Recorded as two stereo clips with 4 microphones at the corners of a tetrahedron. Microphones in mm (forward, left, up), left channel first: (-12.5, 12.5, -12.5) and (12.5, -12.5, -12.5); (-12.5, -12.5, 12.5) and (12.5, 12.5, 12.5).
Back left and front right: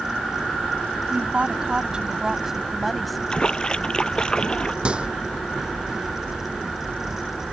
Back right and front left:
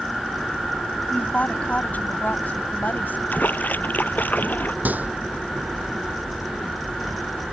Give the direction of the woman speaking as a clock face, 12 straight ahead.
3 o'clock.